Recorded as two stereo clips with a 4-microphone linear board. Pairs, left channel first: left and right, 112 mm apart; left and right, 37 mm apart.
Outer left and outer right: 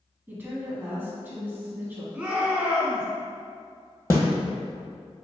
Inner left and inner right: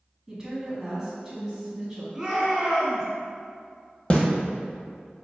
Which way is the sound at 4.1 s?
25° left (ahead or behind).